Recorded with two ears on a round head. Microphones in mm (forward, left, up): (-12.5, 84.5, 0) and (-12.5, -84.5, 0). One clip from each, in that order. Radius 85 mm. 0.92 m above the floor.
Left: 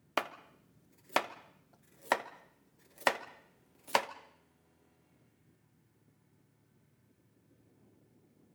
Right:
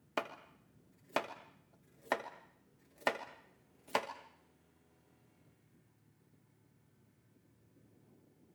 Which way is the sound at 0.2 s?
35° left (ahead or behind).